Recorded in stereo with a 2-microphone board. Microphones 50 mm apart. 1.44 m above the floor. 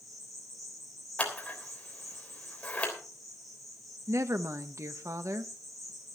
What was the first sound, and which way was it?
An insect, centre (ahead or behind).